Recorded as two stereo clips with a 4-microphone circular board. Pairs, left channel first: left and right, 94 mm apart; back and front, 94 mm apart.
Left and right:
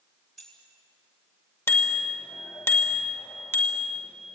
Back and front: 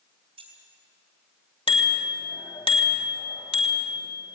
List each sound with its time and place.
0.4 s keys jangling: 5° left, 5.5 m
1.7 s a bicycle bell: 155° left, 2.5 m